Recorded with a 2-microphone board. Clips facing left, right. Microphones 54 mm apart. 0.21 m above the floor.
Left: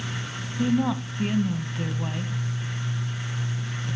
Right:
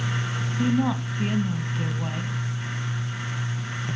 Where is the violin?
I don't hear a violin.